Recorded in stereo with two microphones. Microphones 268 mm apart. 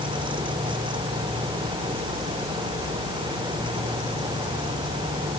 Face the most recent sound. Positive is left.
No sound to turn to.